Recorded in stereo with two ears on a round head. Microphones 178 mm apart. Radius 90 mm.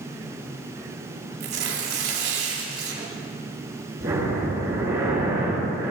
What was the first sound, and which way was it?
Tearing paper, 55° right (ahead or behind).